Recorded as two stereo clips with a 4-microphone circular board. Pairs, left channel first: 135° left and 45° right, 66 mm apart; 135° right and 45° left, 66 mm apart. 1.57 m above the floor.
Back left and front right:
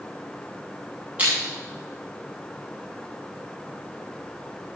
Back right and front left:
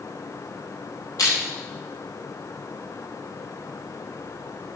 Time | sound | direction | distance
1.2 | crushing | 110° right | 8 m